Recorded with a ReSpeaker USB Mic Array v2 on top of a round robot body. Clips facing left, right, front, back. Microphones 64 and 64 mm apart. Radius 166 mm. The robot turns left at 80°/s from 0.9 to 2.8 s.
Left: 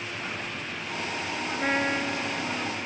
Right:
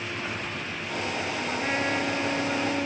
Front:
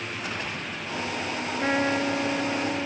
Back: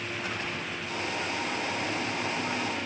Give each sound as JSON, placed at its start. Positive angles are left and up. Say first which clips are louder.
{"t": 1.6, "sound": "a trumpet", "louder": "left 2 dB, front 7 dB", "azimuth_deg": 35}